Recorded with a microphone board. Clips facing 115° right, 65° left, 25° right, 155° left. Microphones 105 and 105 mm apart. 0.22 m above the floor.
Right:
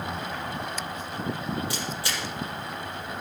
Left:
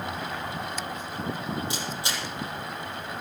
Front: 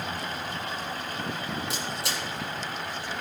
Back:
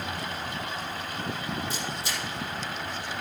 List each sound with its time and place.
1.7 s a camera shutter: straight ahead, 7 m